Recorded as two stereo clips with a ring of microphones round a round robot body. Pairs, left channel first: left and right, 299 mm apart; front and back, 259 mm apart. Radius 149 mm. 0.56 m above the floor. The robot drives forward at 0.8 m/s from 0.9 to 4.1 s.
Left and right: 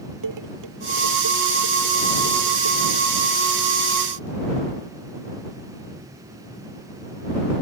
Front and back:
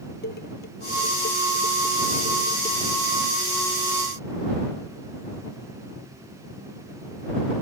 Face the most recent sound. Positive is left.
turn(degrees=-80)